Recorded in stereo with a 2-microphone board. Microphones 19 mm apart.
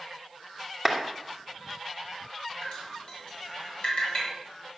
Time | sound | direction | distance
0.8 | a clap | 10° left (ahead or behind) | 2.5 m
2.6 | dripping | 55° left (ahead or behind) | 6 m